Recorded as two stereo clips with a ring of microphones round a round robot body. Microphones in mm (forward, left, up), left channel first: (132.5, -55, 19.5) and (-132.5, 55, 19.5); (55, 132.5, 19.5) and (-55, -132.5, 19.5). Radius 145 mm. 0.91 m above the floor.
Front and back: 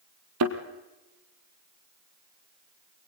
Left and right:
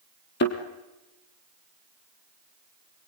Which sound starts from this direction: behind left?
A thud, at 0.4 s.